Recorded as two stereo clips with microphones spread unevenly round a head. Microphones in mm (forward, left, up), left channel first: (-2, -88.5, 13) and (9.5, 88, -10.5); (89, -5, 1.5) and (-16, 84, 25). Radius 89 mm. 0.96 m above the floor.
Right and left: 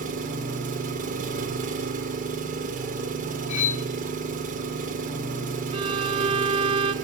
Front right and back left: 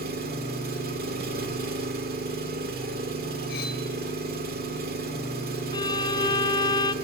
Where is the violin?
20° left, 1.4 m.